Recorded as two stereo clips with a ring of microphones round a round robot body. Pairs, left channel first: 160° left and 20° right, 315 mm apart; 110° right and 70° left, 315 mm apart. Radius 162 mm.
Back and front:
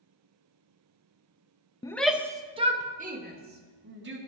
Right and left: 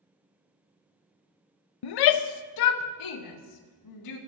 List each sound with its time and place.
1.8 s a shout: 125° right, 0.5 m; by 4.2 s 80° right, 1.6 m